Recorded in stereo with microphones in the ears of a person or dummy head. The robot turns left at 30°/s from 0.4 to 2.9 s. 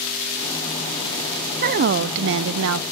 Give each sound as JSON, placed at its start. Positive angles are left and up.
{"t": 1.6, "sound": "a woman speaking", "azimuth_deg": -50, "distance_m": 0.6}